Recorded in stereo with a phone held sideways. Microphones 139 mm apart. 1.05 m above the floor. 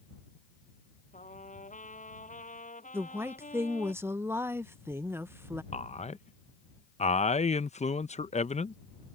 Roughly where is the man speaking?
Left.